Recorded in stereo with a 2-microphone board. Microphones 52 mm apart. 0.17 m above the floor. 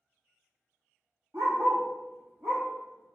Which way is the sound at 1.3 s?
55° right (ahead or behind).